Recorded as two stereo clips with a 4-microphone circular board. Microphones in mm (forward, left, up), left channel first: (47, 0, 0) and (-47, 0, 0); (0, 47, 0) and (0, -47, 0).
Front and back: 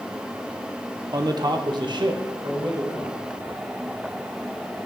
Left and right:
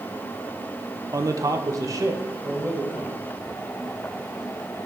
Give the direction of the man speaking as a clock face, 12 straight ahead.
5 o'clock.